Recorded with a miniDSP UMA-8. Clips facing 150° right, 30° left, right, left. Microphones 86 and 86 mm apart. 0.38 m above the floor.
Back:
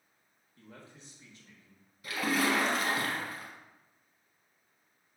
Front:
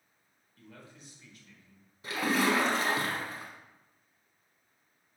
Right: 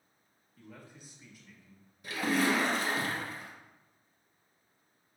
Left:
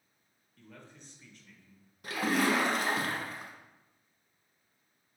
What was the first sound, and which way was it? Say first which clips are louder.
A man speaking: even, right 1 dB; 160° right.